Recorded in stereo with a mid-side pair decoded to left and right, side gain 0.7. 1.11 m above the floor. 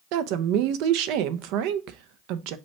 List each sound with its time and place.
0.1 s a woman speaking: 65° right, 0.5 m